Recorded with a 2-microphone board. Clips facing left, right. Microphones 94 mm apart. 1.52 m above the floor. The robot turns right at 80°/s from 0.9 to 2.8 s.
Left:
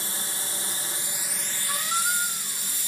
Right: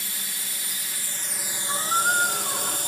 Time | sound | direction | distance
0.0 | a drone | 145° left | ?
1.7 | a squeak | 170° right | ?